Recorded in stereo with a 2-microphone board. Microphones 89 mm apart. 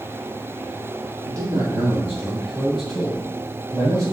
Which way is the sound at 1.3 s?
45° right (ahead or behind).